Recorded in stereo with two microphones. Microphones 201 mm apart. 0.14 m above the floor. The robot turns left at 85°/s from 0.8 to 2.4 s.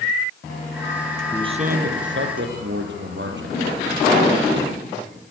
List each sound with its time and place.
1.3 s a man speaking: 15° right, 3 m; by 3.6 s 105° right, 3 m